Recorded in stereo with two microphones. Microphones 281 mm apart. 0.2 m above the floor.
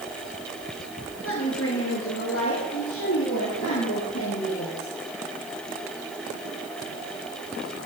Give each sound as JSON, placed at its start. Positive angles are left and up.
{"t": 1.2, "sound": "a woman speaking", "side_deg": 50, "distance_m": 3.5}